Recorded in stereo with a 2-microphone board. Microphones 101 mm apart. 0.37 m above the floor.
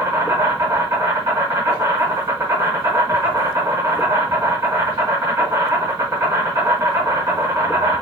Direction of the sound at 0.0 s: 35° right (ahead or behind).